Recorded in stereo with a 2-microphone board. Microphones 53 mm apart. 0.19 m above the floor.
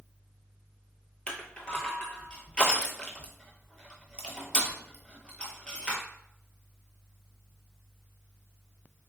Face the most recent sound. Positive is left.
turn(degrees=20)  # may be behind; listen again after turning